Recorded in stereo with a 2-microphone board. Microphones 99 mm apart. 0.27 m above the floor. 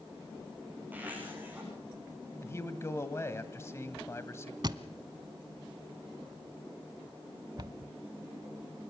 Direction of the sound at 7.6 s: 45° right (ahead or behind).